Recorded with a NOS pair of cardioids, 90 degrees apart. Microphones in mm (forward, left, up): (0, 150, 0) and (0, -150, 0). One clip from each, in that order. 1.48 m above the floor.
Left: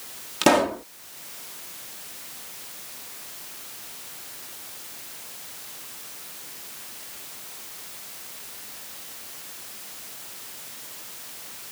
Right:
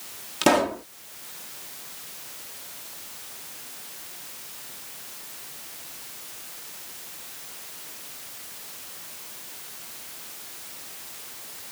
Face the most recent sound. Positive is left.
turn(degrees=5)